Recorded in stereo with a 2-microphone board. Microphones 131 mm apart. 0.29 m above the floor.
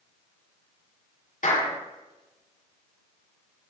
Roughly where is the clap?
Left.